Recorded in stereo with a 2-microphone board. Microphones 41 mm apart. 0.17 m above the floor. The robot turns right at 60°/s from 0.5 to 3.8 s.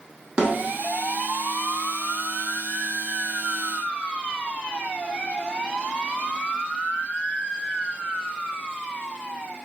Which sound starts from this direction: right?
A snare drum, at 0.4 s.